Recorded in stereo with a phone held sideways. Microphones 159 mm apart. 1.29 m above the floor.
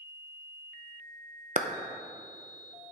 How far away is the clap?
About 0.5 m.